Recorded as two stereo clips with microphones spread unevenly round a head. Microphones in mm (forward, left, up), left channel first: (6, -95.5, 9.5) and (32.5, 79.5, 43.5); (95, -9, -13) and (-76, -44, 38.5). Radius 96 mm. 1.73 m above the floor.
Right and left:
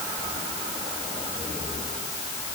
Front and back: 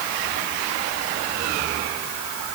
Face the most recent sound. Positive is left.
No sound to turn to.